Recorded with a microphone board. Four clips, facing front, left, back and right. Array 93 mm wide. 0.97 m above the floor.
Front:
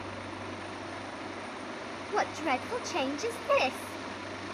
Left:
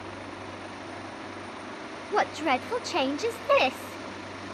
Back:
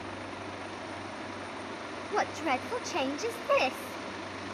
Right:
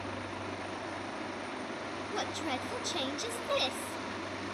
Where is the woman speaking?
90° left, 0.7 m.